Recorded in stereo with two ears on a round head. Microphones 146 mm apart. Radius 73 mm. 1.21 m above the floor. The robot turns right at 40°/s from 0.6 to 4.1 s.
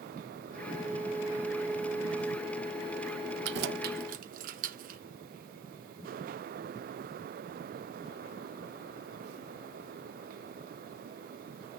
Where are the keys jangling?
75° right (ahead or behind), 0.7 m; by 5.0 s 50° right (ahead or behind), 0.7 m.